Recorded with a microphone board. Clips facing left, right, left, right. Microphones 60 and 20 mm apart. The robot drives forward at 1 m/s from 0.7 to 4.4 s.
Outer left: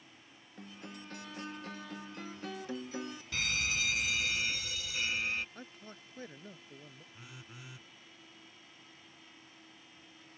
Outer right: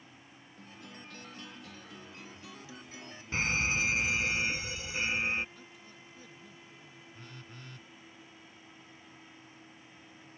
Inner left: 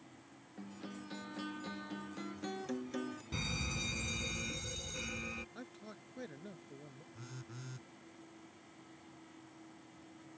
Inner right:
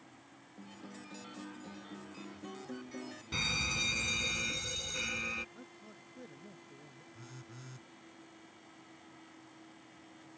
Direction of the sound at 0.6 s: 35° left (ahead or behind).